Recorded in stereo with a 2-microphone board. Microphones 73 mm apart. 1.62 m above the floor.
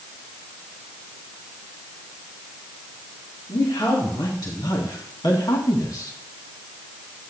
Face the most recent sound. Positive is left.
turn(degrees=55)  # may be behind; listen again after turning